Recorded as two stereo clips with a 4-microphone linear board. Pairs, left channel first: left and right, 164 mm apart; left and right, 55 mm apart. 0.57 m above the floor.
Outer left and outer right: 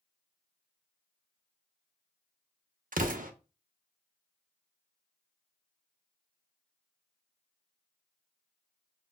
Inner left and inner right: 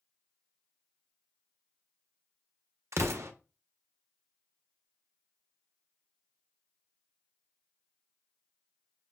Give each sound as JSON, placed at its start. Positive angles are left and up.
{"t": 2.9, "sound": "an explosion", "side_deg": -60, "distance_m": 0.5}